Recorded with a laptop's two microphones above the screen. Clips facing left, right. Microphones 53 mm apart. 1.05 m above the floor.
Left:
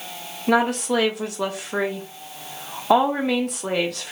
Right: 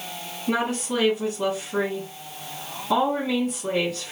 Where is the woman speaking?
70° left (ahead or behind), 0.9 m.